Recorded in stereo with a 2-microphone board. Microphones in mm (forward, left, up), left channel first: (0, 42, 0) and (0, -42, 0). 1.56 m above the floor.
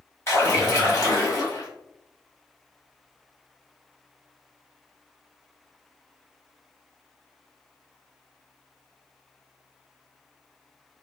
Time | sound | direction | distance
0.3 | a splash | 35° left (ahead or behind) | 1.4 m